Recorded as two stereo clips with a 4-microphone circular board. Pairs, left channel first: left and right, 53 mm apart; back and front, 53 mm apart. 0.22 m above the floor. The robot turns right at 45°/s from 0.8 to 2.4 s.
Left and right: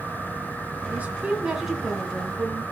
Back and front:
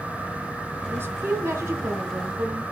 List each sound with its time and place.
0.9 s a woman speaking: 35° right, 1.9 m; by 2.6 s 30° left, 1.9 m